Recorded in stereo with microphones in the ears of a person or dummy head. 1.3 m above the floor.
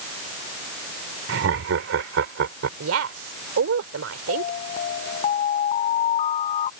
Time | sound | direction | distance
1.3 | laughter | 85° right | ?
2.8 | a woman speaking | 85° right | ?
4.3 | an alarm | 30° left (ahead or behind) | ?